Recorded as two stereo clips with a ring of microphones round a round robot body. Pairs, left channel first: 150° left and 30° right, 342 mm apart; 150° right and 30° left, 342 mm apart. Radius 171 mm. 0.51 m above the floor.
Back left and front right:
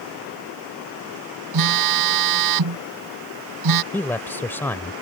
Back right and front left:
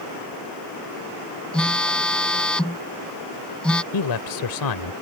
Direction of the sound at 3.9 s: 125° right.